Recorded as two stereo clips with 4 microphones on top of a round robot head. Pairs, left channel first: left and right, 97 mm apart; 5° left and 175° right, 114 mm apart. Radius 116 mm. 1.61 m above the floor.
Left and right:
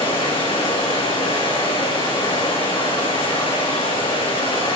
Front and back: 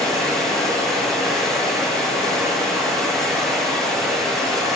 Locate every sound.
0.0 s running water: 90° left, 8.5 m